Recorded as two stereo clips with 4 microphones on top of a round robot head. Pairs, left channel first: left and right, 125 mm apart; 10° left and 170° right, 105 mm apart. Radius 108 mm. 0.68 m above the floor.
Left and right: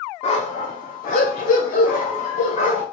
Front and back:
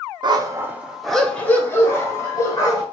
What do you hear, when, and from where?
0.2 s a dog barking: 145° left, 0.5 m; by 2.8 s 65° left, 1.4 m